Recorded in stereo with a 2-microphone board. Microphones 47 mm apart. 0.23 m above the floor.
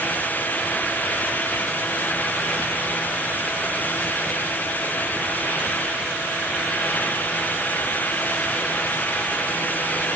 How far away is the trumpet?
I don't hear a trumpet.